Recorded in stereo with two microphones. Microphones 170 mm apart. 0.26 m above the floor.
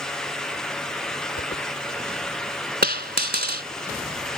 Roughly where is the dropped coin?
Right.